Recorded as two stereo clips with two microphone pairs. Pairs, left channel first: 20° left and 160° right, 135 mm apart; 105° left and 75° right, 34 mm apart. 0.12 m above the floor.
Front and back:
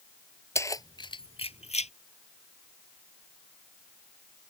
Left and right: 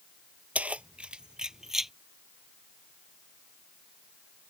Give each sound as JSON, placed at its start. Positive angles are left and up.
{"t": 0.6, "sound": "keys jangling", "azimuth_deg": -45}